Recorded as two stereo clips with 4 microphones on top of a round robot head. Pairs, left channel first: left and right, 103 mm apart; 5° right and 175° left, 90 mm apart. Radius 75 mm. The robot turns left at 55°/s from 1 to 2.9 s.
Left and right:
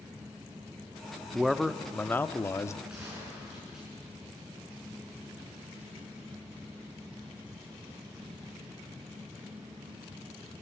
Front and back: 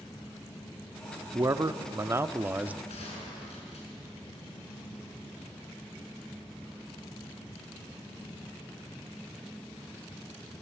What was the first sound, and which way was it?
A man speaking, 170° right.